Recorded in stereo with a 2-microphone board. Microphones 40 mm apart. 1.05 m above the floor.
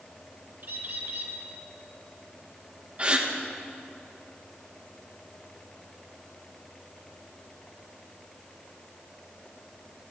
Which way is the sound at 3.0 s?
25° right (ahead or behind).